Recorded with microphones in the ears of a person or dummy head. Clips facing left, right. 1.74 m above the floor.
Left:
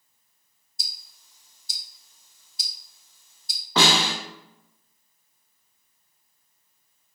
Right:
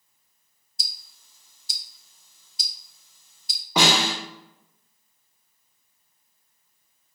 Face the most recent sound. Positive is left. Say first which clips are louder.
# even
turn(degrees=-15)  # may be behind; listen again after turning